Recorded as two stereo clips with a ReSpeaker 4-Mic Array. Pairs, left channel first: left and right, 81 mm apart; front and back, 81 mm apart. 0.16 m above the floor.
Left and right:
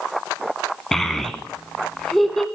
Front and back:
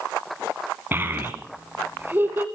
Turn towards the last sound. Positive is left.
turn(degrees=170)